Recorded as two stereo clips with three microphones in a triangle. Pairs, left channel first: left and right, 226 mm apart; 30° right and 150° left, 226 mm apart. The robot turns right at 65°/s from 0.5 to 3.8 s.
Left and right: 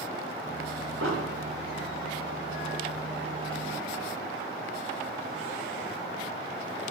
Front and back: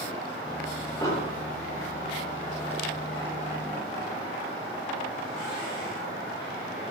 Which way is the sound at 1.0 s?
110° right.